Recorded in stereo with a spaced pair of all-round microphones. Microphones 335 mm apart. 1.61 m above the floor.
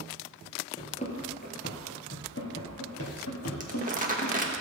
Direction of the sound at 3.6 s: 25° right (ahead or behind).